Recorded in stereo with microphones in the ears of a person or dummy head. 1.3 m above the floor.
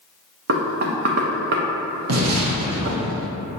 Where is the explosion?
80° right, 0.8 m.